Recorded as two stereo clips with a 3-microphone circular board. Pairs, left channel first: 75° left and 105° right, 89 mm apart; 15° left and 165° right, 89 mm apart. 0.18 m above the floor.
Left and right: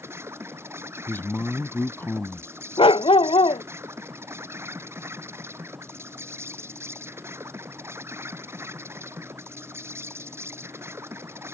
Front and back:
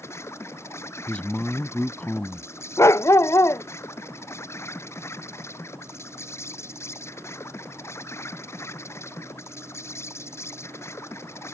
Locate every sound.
0.0 s an insect: 45° right
1.1 s a man speaking: 70° left
2.8 s a dog barking: 70° left